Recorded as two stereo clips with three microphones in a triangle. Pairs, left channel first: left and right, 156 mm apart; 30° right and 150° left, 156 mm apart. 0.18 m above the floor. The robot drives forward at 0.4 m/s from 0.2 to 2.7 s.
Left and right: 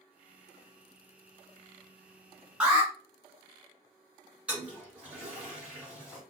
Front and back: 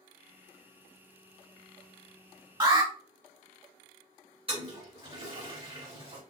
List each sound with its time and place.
2.6 s an alarm: 170° right, 1.1 m
4.5 s a toilet flushing: 170° right, 1.8 m